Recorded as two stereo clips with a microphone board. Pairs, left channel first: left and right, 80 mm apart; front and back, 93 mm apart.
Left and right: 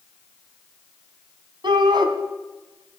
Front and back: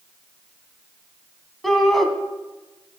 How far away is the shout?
About 2.5 m.